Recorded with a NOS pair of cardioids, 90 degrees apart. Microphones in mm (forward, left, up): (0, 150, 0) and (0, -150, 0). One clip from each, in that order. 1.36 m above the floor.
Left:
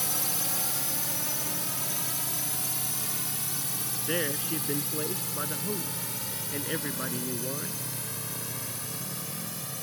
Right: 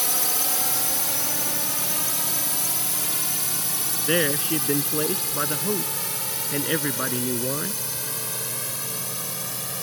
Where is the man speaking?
55° right.